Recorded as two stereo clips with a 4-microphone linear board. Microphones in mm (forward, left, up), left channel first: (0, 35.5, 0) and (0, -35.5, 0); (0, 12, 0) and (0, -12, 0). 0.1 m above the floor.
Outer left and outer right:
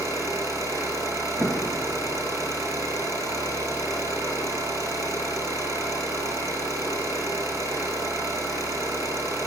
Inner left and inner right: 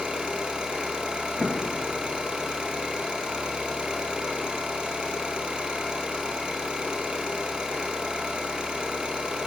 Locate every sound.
0.0 s an engine running: 45° right (ahead or behind), 2 m
1.4 s an explosion: 40° right (ahead or behind), 1.0 m